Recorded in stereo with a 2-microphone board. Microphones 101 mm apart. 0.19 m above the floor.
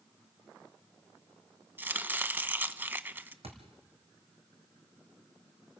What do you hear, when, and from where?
1.8 s chopping: 20° right (ahead or behind), 0.7 m
3.4 s a thud: 80° right, 3.5 m